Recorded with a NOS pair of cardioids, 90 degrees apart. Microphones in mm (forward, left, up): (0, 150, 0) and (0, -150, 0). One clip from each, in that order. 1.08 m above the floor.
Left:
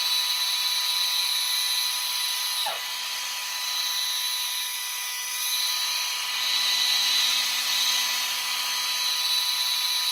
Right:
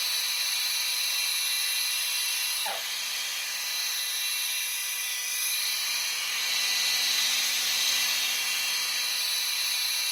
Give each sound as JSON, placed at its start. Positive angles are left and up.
{"t": 0.0, "sound": "a machine running", "azimuth_deg": -20, "distance_m": 2.5}